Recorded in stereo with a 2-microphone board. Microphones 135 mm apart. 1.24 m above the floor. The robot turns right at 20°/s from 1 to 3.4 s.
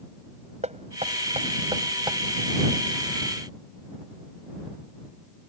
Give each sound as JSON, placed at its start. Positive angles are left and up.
{"t": 0.6, "sound": "knocking", "side_deg": -55}